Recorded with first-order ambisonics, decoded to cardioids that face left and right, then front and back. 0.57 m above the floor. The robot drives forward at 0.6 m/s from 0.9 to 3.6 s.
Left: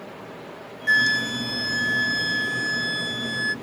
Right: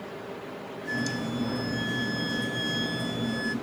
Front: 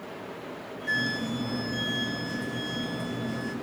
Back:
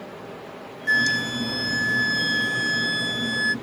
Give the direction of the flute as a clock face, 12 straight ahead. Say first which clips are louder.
Left 13 dB, back 8 dB; 8 o'clock.